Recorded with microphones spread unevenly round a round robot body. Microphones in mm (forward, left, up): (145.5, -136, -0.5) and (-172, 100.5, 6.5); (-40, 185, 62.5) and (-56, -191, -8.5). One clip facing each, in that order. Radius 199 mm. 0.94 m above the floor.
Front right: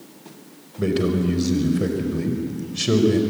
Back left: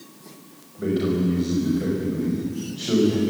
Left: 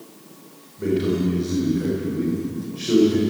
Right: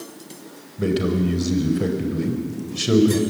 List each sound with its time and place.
0.8 s a man speaking: 65° right, 5 m